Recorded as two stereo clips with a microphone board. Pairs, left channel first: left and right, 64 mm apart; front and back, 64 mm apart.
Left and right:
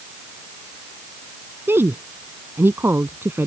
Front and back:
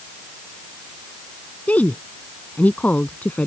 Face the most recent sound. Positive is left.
turn(degrees=-60)